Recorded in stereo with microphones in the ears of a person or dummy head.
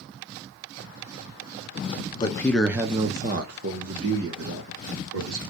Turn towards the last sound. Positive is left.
turn(degrees=-75)  # may be behind; listen again after turning